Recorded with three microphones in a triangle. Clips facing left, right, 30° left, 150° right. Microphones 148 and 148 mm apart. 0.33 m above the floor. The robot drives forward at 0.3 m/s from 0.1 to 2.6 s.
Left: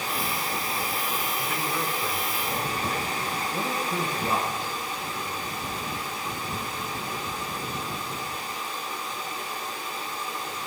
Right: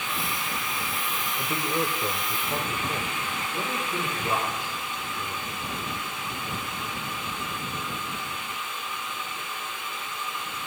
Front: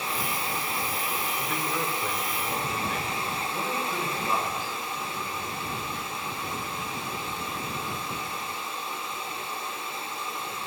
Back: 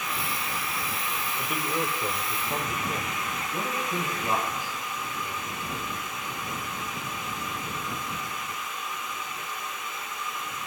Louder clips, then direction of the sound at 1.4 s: Right 2 dB, back 3 dB; 80° right.